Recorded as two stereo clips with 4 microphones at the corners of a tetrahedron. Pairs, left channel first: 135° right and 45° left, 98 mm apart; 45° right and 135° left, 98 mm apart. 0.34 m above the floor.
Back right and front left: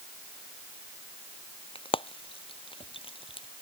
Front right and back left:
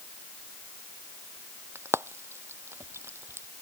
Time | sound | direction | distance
1.8 | frying | 160° right | ?